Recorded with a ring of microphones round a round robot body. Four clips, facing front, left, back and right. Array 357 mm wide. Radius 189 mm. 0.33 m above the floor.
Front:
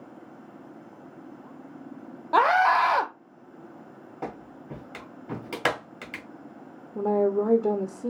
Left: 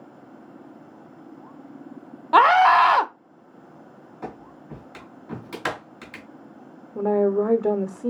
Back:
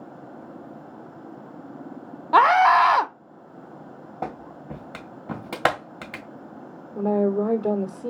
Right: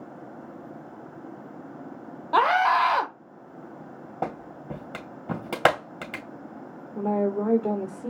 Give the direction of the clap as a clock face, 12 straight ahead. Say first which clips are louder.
Right 5 dB, back 4 dB; 4 o'clock.